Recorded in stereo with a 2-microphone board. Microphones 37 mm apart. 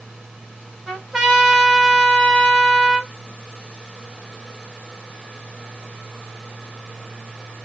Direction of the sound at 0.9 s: 10° right (ahead or behind).